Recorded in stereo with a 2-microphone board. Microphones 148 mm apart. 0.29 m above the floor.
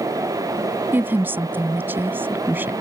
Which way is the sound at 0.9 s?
15° right (ahead or behind).